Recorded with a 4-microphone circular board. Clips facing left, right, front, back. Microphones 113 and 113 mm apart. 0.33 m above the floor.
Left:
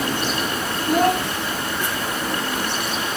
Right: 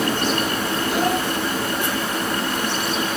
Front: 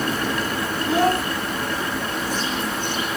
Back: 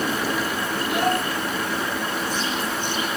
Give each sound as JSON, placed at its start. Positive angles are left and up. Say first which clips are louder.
{"t": 0.9, "sound": "a child speaking", "louder": "left 5 dB, front 4 dB", "azimuth_deg": 55, "distance_m": 2.0}